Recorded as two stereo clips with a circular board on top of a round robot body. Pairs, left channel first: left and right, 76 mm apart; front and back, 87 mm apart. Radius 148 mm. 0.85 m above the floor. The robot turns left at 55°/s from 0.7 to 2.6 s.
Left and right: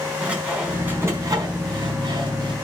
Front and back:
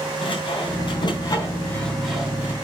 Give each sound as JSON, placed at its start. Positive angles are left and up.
{"t": 0.2, "sound": "sawing", "azimuth_deg": -15, "distance_m": 4.0}